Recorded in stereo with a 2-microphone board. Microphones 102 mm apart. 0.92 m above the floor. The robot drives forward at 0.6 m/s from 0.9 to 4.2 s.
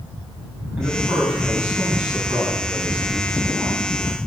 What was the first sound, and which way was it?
A man speaking, 10° right (ahead or behind).